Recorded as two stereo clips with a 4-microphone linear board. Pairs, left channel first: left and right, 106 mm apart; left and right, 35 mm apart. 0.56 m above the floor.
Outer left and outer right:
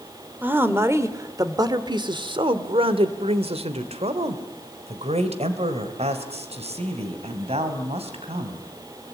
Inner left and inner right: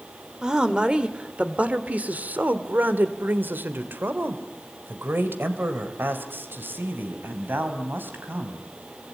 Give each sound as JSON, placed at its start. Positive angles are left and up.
{"t": 0.4, "sound": "a woman speaking", "side_deg": -15, "distance_m": 2.0}